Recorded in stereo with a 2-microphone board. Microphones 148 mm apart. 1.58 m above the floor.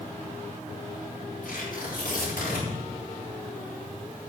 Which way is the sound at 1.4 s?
85° left.